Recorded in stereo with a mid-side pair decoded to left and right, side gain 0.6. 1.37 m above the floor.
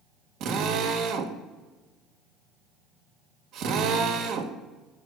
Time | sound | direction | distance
0.4 | a drill | 65° right | 1.3 m